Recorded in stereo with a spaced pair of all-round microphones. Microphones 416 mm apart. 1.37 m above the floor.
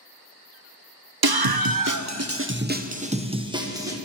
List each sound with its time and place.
1.2 s a scream: 60° right (ahead or behind), 0.5 m; by 4.0 s 5° right (ahead or behind), 1.3 m